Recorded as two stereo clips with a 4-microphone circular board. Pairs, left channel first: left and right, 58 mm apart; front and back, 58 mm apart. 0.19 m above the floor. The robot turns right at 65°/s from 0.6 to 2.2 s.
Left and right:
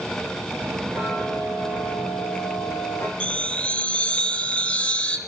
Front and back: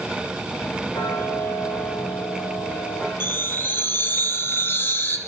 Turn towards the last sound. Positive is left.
turn(degrees=25)